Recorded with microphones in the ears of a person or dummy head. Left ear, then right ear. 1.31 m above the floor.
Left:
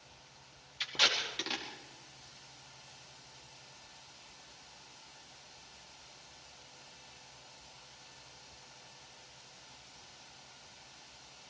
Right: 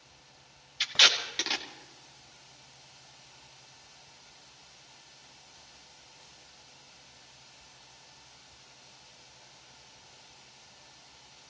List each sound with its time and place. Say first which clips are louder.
0.8 s tape being pulled: right 7 dB; 20° right (ahead or behind), 2.5 m